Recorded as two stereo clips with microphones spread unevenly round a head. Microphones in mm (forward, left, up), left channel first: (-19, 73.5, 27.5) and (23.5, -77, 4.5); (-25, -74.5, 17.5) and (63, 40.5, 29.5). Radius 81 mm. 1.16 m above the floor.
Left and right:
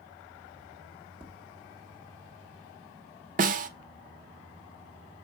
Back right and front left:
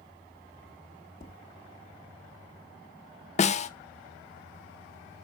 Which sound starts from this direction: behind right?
Tapping, at 1.2 s.